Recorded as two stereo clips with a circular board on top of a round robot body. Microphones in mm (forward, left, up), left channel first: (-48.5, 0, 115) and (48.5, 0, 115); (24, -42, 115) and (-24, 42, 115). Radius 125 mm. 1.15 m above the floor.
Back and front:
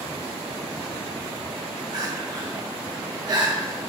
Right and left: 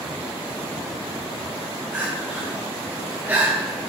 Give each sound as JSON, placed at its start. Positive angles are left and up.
{"t": 1.9, "sound": "crying", "azimuth_deg": 50, "distance_m": 1.0}